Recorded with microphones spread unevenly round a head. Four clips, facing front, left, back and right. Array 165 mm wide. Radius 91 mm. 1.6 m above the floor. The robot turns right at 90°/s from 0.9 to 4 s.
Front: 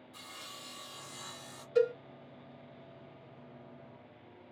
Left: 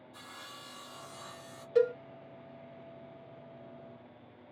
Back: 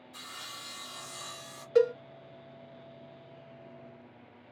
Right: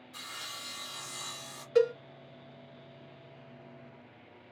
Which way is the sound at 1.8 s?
170° right.